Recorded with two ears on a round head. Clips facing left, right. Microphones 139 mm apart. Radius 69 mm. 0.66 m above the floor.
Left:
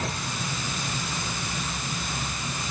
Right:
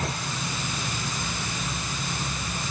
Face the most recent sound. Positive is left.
No sound to turn to.